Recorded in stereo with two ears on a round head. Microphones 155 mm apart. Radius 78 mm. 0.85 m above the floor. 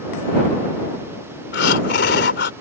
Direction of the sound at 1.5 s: 70° left (ahead or behind).